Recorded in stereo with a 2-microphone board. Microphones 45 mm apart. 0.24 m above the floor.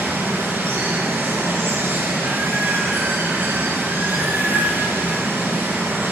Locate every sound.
0.0 s running water: 50° right (ahead or behind), 3 m